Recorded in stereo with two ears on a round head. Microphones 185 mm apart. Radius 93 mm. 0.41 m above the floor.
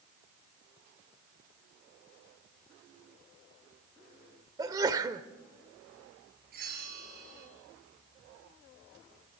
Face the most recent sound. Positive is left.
turn(degrees=-50)  # may be behind; listen again after turning